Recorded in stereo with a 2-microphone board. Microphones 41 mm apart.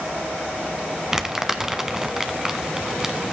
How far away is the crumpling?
About 1.1 m.